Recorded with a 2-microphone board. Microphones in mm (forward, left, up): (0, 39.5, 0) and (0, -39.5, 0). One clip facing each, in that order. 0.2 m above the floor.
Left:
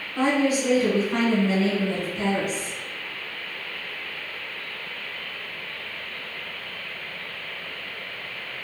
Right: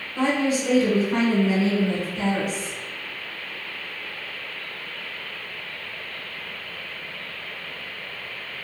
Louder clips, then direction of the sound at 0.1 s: Left 1 dB; 20° left (ahead or behind).